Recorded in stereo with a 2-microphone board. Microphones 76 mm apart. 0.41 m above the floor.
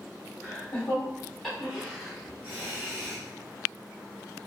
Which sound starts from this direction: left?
Laughter, at 0.4 s.